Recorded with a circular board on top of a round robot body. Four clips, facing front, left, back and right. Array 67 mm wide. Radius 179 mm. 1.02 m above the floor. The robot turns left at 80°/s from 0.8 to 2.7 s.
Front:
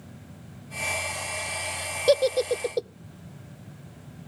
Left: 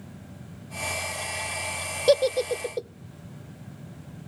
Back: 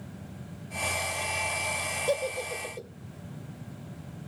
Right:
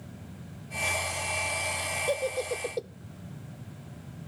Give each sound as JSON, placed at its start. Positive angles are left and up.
{"t": 2.1, "sound": "a giggle", "azimuth_deg": 55, "distance_m": 0.6}